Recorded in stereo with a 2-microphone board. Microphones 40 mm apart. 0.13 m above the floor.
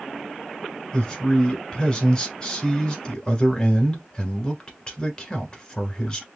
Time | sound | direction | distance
0.9 | a man speaking | 20° left (ahead or behind) | 1.3 m